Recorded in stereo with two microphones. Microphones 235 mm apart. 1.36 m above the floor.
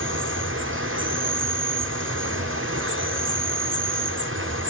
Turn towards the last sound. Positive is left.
turn(degrees=-60)  # may be behind; listen again after turning